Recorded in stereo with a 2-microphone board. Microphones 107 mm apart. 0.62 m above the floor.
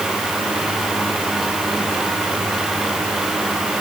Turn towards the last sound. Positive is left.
No sound to turn to.